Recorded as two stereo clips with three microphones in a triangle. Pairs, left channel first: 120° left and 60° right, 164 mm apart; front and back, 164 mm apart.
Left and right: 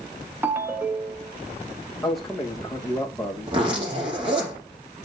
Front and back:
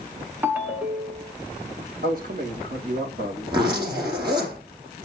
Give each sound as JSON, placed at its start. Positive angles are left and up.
{"t": 0.4, "sound": "a ringtone", "azimuth_deg": -115, "distance_m": 0.7}
{"t": 2.0, "sound": "a man speaking", "azimuth_deg": -150, "distance_m": 6.0}
{"t": 3.5, "sound": "a zipper", "azimuth_deg": -115, "distance_m": 5.5}